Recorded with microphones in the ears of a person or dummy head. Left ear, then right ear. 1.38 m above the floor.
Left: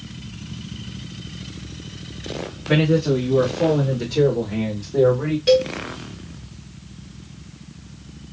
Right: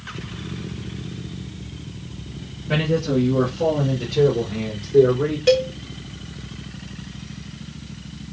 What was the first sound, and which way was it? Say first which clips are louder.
A man speaking: left 3 dB; 50° left (ahead or behind).